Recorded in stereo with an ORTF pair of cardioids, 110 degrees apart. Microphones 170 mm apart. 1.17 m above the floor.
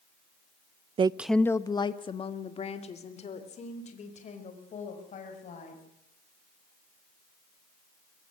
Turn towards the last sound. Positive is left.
turn(degrees=45)